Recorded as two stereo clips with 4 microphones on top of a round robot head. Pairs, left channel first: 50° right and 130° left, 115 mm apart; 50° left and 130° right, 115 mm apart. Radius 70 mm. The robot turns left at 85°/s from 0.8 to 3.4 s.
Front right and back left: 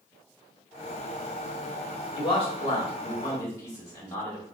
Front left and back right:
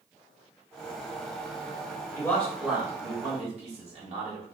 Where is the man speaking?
5° right, 2 m; by 4.5 s 115° right, 2 m.